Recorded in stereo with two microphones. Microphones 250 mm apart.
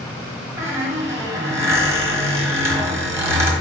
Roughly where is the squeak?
Centre.